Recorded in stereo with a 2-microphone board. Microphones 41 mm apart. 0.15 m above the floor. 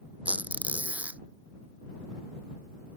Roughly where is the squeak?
Right.